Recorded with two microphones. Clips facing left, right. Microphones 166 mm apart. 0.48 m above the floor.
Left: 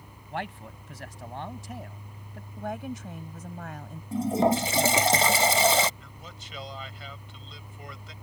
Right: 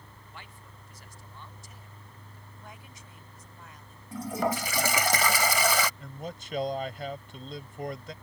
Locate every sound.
0.3 s a man speaking: 75° left (ahead or behind)
2.6 s a woman speaking: 70° left (ahead or behind)
4.1 s a toilet flushing: 25° left (ahead or behind)
6.0 s a man speaking: 50° right (ahead or behind)